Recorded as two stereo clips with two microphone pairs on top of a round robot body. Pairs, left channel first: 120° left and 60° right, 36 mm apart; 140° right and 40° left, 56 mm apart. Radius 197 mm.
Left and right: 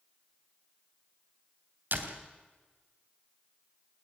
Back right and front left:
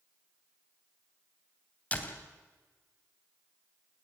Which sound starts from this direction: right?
A door slam, at 1.9 s.